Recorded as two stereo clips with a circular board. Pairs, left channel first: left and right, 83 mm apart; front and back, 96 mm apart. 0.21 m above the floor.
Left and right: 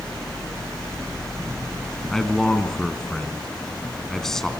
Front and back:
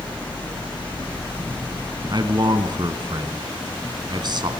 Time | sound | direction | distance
2.1 | a man speaking | 175° left | 2.5 m